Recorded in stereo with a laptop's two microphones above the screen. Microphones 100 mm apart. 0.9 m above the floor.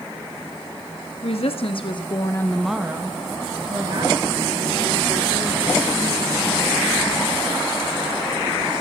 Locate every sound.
1.2 s a woman speaking: 70° left (ahead or behind), 1.5 m; by 6.6 s 65° right (ahead or behind), 4.5 m